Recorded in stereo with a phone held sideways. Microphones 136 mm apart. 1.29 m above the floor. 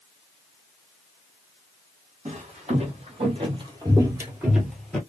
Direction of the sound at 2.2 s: 55° right (ahead or behind).